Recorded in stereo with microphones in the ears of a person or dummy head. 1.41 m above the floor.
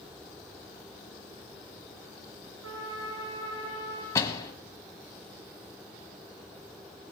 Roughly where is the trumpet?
Right.